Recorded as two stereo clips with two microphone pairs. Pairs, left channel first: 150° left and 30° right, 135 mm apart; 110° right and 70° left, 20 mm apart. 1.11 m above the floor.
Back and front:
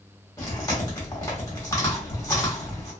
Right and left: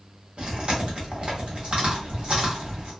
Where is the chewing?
85° left, 1.2 m.